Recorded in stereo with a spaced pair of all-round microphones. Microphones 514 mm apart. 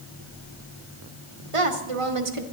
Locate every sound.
1.5 s a woman speaking: 75° right (ahead or behind), 1.2 m